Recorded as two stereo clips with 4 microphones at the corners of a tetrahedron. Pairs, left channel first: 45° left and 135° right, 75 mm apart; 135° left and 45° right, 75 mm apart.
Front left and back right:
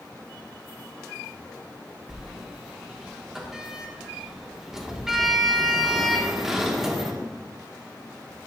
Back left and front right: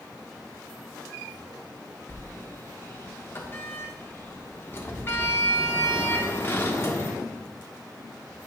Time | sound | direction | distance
2.1 | a sliding door | 150° left | 0.9 m